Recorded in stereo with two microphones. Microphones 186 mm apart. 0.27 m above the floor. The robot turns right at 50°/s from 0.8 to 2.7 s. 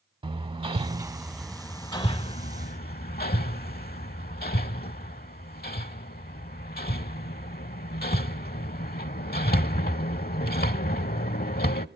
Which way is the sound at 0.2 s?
30° right (ahead or behind).